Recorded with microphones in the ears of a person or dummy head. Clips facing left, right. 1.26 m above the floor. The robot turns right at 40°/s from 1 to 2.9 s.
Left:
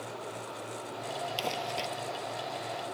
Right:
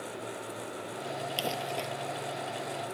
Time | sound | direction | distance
1.4 | crumpling | 15° right (ahead or behind) | ?